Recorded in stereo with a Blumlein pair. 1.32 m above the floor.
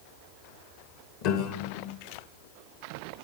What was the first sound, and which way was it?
A piano, 45° left.